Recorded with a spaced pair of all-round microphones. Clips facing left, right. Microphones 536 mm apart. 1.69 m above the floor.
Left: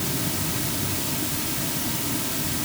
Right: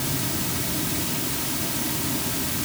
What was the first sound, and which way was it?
Only background noise.